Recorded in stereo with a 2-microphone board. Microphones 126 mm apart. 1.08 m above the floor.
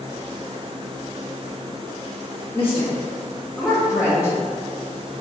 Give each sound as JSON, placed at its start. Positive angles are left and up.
{"t": 2.5, "sound": "a woman speaking", "side_deg": 25, "distance_m": 1.0}